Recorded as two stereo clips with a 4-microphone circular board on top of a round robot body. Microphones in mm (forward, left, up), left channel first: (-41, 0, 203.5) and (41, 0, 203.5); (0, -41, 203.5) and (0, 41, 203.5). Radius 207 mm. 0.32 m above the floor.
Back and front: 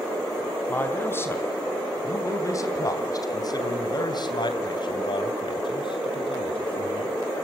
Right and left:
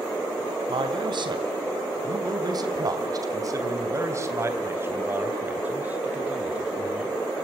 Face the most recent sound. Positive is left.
turn(degrees=170)